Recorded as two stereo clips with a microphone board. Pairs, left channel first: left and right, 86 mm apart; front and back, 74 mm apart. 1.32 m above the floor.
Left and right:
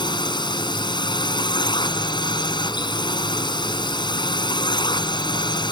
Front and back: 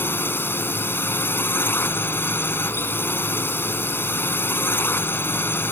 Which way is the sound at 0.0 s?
60° left.